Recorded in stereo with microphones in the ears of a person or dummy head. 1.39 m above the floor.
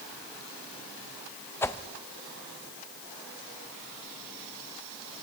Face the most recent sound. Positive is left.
turn(degrees=10)  # may be behind; listen again after turning